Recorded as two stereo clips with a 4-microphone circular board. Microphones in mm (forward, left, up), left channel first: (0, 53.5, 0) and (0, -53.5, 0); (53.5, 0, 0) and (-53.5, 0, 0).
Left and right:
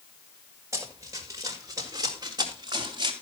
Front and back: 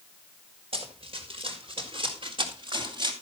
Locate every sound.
0.7 s running footsteps: 155° right, 5 m; by 3.1 s 135° right, 4 m